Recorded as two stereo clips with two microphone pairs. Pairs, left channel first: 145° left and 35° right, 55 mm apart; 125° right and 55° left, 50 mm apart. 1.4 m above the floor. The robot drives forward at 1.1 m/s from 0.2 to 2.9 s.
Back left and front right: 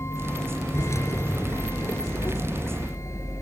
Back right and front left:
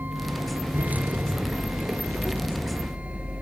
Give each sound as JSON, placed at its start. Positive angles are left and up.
{"t": 0.0, "sound": "a vehicle", "azimuth_deg": 110}